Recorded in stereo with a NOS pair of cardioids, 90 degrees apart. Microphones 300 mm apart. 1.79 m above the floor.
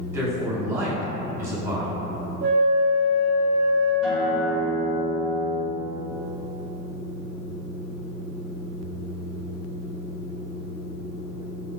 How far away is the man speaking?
About 1.9 m.